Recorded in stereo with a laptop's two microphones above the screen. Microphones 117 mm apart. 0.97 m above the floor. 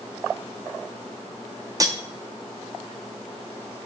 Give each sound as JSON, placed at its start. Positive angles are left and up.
{"t": 1.8, "sound": "cutlery clinking", "side_deg": -30, "distance_m": 0.7}